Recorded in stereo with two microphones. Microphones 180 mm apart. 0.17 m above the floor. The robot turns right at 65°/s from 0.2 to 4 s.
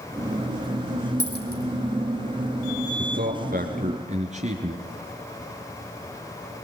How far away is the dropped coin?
About 3.5 m.